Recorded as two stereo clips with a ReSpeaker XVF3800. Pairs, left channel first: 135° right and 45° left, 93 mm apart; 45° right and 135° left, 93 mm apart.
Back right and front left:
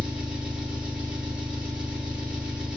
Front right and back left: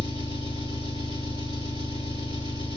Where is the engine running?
125° left, 3 m.